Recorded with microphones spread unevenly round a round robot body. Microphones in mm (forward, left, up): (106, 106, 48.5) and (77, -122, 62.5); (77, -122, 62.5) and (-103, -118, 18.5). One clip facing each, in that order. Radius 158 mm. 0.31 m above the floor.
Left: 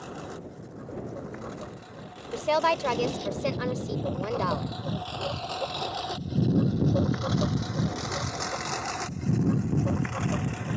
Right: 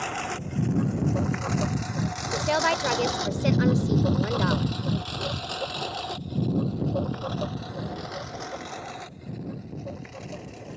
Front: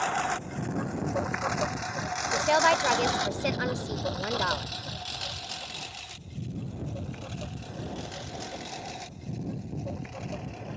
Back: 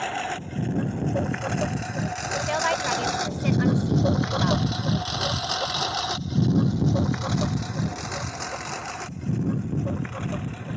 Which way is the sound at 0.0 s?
115° right.